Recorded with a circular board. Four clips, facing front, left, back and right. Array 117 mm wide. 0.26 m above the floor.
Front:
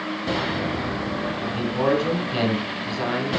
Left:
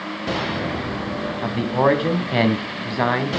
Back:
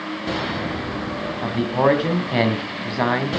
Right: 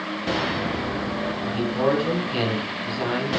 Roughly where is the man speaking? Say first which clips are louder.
Left 5 dB, back 6 dB; behind left.